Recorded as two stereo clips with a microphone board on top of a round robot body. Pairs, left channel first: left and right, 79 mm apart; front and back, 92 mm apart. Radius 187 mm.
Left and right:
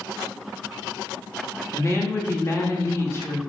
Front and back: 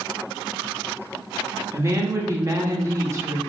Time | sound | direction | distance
1.7 | a woman speaking | 130° left | 1.1 m